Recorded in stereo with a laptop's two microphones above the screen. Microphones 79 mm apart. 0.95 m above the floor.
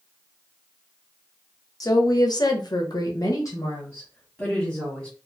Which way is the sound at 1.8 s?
50° left (ahead or behind).